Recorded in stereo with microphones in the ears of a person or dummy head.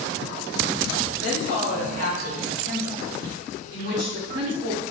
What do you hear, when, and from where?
1.2 s a woman speaking: 55° right (ahead or behind), 4.5 m